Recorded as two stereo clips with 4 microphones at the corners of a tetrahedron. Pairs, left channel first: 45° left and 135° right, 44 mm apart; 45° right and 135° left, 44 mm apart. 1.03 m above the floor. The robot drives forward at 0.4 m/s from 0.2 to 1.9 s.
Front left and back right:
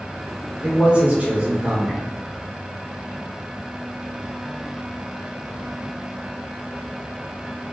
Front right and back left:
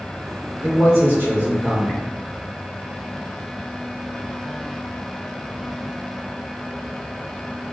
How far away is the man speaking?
About 1.5 m.